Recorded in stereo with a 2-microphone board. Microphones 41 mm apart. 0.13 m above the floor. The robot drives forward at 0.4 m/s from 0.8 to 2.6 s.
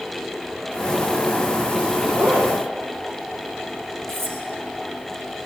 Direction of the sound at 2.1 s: 45° right (ahead or behind).